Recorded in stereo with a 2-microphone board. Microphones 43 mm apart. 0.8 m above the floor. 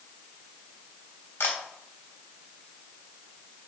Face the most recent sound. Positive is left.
turn(degrees=70)  # may be behind; listen again after turning